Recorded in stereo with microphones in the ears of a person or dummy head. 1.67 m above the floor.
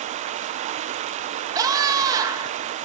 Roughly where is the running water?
Right.